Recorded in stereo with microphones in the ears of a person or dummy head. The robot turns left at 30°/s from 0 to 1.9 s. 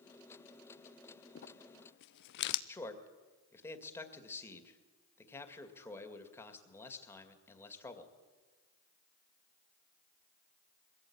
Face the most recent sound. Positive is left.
turn(degrees=15)  # may be behind; listen again after turning